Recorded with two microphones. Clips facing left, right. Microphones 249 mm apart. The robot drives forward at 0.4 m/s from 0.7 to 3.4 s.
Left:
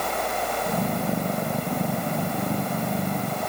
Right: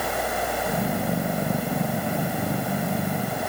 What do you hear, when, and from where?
Only background noise.